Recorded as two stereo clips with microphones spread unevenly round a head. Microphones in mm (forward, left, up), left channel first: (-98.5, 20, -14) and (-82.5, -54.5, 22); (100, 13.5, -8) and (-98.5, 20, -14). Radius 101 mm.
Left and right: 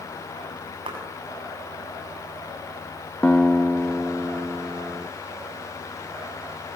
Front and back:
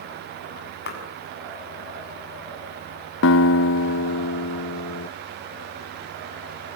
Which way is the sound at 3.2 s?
25° left.